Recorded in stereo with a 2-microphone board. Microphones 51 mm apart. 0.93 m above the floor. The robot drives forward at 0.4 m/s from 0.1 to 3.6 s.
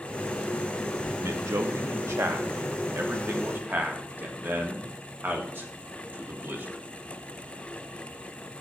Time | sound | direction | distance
1.2 | a man speaking | 75° right (ahead or behind) | 1.1 m